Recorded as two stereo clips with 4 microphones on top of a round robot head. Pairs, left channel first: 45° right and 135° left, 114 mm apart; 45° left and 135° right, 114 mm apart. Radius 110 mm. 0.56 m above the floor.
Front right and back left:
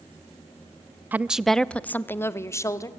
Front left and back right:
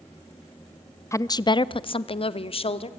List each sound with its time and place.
1.1 s a woman speaking: 80° left, 0.6 m; by 2.9 s 15° left, 1.5 m